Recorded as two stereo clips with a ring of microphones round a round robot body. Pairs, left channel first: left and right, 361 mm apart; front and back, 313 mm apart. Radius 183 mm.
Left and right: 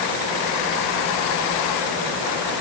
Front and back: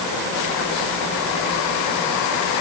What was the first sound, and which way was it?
Only background noise.